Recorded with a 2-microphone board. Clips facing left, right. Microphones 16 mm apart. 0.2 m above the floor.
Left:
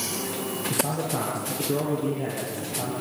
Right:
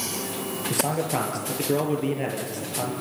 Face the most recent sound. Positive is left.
turn(degrees=-65)  # may be behind; listen again after turning